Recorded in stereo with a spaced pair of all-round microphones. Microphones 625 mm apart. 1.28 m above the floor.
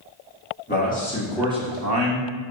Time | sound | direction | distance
0.7 | a man speaking | 15° left (ahead or behind) | 1.8 m